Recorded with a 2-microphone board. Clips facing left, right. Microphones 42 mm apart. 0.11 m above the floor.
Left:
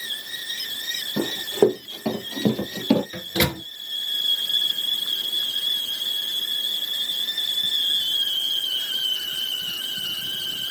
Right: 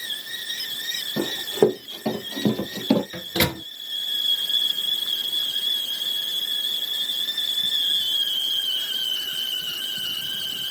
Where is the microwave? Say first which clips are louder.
Even; 5° right (ahead or behind), 1.0 m.